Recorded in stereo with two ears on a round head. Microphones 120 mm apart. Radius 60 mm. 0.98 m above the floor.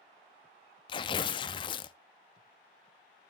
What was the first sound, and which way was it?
Tearing paper, 35° left (ahead or behind).